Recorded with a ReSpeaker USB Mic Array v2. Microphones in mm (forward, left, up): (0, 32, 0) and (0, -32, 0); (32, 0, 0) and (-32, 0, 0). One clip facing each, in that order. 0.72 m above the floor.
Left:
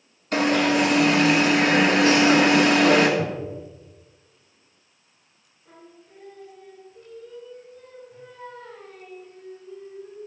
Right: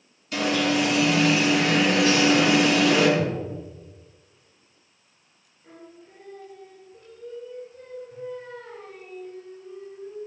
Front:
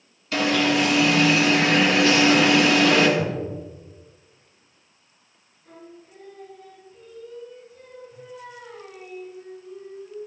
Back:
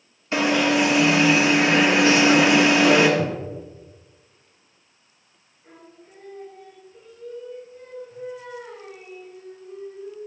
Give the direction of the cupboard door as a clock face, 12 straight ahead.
7 o'clock.